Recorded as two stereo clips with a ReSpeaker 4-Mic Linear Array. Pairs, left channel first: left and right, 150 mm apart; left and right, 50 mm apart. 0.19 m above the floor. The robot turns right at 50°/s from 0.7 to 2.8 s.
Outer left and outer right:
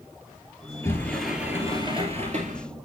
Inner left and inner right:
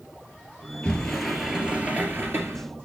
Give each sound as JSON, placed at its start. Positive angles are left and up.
{"t": 0.8, "sound": "a sliding door", "azimuth_deg": 160, "distance_m": 2.0}